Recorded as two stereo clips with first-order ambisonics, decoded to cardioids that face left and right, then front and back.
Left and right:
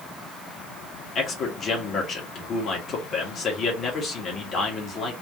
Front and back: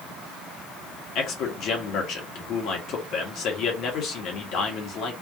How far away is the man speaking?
About 1.6 m.